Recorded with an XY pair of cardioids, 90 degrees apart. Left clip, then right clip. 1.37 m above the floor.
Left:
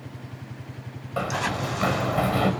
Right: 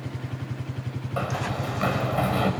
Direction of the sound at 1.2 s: 10° left.